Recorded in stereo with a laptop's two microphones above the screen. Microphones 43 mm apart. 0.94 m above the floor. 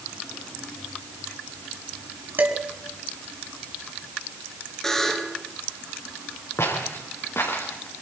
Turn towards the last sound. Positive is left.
turn(degrees=65)  # may be behind; listen again after turning